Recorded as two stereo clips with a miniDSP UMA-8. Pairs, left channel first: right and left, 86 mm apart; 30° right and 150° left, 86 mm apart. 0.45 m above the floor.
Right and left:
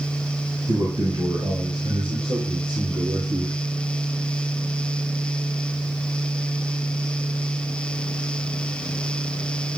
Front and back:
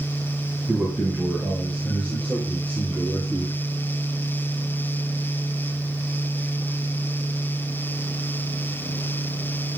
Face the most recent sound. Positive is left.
turn(degrees=45)